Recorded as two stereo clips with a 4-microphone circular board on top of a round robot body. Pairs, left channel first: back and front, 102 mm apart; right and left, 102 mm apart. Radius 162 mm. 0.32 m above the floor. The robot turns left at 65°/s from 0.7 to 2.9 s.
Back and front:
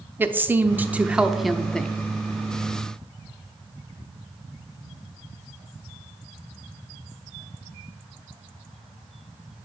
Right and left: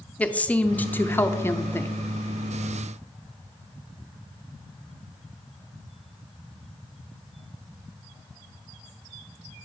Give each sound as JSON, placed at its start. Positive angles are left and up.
{"t": 0.2, "sound": "a woman speaking", "azimuth_deg": -35, "distance_m": 0.9}